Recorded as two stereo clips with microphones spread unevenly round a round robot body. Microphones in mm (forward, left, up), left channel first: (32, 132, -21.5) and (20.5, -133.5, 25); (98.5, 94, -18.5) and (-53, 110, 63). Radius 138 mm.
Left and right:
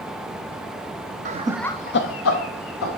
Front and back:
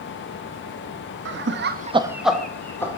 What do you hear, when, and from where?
1.2 s laughter: 160° right, 1.0 m; by 3.0 s 60° left, 2 m